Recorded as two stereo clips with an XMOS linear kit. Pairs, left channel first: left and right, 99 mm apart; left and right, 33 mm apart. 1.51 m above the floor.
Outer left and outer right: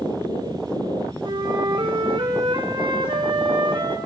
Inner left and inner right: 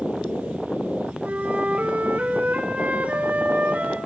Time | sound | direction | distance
1.2 | a flute | 55° right (ahead or behind) | 3.5 m